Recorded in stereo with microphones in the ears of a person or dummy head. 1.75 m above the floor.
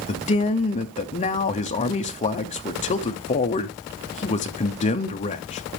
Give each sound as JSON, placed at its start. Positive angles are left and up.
{"t": 0.1, "sound": "a man speaking", "side_deg": 35, "distance_m": 0.8}